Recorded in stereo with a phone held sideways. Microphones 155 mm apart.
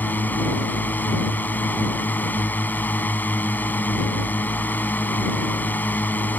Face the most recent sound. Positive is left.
turn(degrees=10)  # may be behind; listen again after turning